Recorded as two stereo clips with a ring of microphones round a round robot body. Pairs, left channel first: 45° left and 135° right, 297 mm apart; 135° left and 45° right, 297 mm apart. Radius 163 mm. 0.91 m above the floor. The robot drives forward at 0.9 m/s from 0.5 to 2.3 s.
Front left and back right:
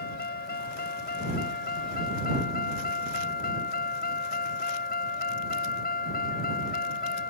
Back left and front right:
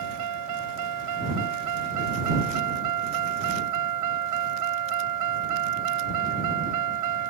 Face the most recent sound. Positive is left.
turn(degrees=-15)